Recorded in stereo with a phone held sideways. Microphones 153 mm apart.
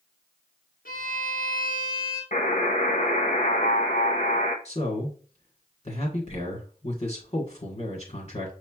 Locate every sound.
0.8 s a violin: 70° left (ahead or behind), 1.6 m
2.3 s a buzzer: 55° left (ahead or behind), 0.8 m
4.7 s a man speaking: 45° left (ahead or behind), 1.5 m